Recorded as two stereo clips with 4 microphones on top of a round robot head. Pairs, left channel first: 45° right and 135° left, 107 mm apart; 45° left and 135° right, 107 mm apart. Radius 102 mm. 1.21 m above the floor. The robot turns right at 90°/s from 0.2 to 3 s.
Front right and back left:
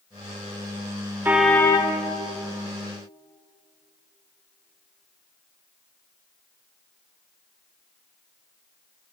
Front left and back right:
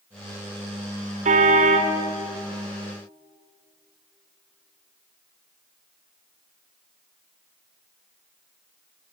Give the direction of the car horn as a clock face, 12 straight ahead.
5 o'clock.